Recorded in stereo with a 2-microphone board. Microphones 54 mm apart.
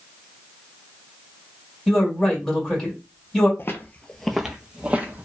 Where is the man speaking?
5° left (ahead or behind), 1.8 m.